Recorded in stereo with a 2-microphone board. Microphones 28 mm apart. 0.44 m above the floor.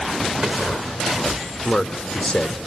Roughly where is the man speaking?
Left.